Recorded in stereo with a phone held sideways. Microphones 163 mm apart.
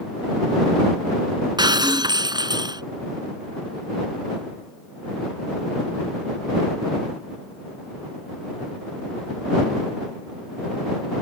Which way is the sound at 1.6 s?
25° right (ahead or behind).